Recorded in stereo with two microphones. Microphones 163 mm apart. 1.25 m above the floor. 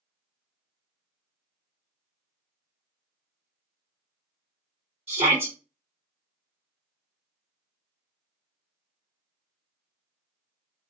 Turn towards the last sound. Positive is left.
turn(degrees=-40)  # may be behind; listen again after turning